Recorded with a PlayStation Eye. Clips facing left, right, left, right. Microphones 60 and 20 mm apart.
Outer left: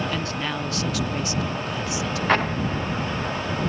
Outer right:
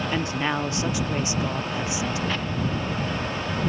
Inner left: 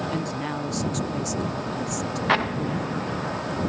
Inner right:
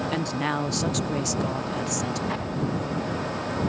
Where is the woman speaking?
25° right (ahead or behind).